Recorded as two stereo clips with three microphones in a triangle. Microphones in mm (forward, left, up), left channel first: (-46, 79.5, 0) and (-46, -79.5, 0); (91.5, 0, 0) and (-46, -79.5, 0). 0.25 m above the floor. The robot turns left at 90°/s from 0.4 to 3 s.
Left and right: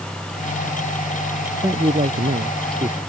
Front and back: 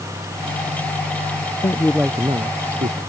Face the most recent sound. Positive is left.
turn(degrees=-150)